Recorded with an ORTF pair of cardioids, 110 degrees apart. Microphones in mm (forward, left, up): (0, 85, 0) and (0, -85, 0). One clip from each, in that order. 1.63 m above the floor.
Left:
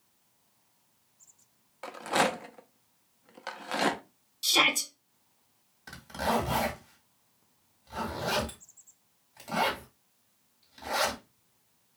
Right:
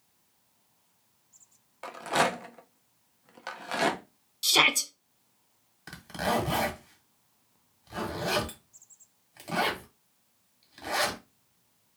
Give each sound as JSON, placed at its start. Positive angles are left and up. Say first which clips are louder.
{"t": 1.8, "sound": "a rattle", "louder": "right 1 dB", "azimuth_deg": 0, "distance_m": 0.5}
{"t": 4.4, "sound": "a shout", "louder": "right 2 dB", "azimuth_deg": -15, "distance_m": 0.6}
{"t": 5.9, "sound": "a zipper", "louder": "even", "azimuth_deg": -20, "distance_m": 1.4}